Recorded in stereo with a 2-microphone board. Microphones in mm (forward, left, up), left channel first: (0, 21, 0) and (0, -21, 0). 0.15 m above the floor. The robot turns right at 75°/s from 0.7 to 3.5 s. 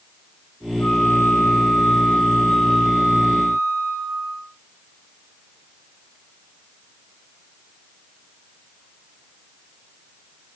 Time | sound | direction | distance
0.8 | a flute | 50° left | 8 m